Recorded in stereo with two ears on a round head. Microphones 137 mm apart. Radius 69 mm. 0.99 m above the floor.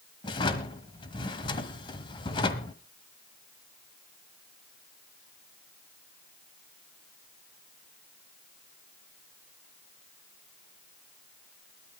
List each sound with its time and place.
0.2 s a drawer: 30° left (ahead or behind), 1.4 m